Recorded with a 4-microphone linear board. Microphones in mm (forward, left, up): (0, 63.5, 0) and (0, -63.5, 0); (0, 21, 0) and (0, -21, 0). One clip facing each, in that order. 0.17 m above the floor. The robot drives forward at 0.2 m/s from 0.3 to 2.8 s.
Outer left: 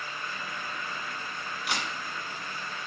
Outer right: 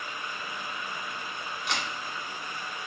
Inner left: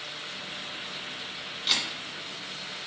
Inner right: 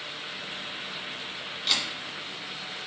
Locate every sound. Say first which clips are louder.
1.7 s a camera shutter: even, even; 5° left (ahead or behind), 1.6 m